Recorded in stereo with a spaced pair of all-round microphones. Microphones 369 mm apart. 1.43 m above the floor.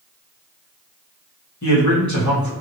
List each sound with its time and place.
1.6 s a man speaking: 50° left (ahead or behind), 1.8 m